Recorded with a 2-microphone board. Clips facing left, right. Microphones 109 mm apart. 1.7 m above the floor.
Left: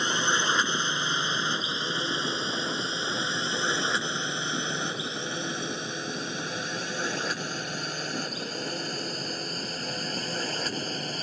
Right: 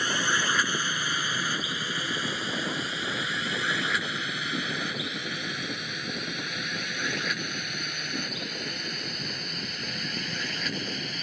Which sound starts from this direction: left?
A drone, at 0.0 s.